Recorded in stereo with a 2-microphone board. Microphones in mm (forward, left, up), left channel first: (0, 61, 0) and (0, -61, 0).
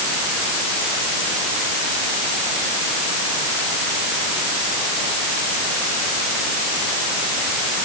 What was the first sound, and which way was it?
Only background noise.